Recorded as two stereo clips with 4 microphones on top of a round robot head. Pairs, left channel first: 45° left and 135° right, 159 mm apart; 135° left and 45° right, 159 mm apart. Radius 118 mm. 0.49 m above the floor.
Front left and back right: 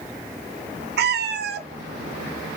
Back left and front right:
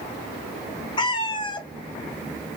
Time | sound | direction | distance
1.0 | a cat meowing | 160° right | 0.6 m